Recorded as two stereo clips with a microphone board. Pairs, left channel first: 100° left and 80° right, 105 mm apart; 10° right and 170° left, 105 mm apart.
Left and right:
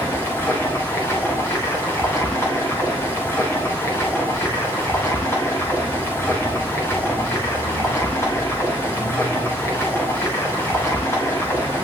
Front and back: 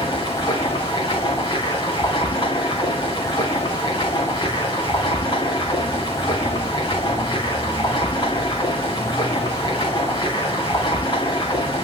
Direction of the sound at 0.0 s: 35° left.